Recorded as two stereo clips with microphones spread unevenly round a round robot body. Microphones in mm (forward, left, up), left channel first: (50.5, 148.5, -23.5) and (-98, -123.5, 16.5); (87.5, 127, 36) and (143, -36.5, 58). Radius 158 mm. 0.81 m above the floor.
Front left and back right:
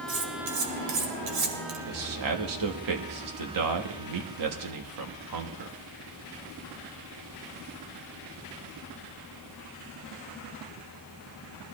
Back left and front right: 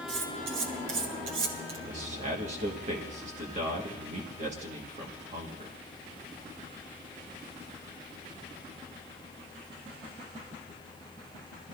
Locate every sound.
0.1 s cutlery clinking: 80° right, 2 m
1.9 s a man speaking: 125° right, 1.5 m